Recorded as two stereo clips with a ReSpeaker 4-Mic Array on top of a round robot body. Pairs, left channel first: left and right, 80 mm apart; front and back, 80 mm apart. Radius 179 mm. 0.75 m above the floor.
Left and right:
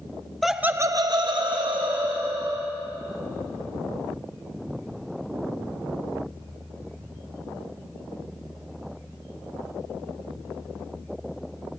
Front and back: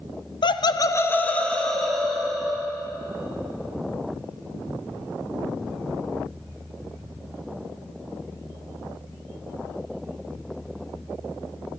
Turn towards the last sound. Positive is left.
turn(degrees=-95)